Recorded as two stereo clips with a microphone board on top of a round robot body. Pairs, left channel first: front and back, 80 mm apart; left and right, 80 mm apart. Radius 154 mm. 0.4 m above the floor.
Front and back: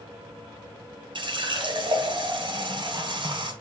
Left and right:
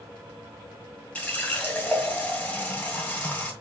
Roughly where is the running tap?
Behind.